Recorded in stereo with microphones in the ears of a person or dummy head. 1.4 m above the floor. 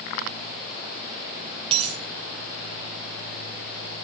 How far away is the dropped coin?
About 4 m.